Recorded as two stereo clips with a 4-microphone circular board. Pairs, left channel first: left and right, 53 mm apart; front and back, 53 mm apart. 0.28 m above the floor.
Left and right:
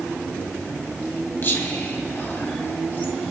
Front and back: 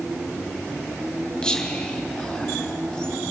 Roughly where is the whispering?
Left.